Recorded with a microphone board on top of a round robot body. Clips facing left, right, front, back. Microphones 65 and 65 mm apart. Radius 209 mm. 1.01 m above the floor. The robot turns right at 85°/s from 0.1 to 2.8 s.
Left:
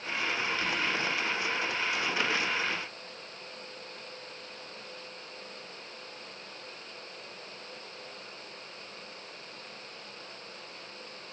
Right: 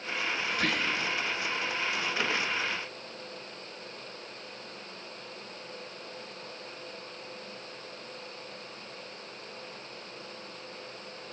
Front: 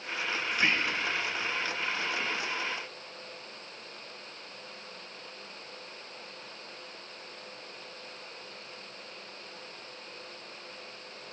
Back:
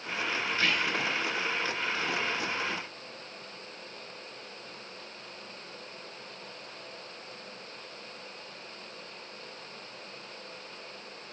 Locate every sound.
0.5 s whispering: 80° right, 1.5 m; by 1.1 s 35° right, 1.5 m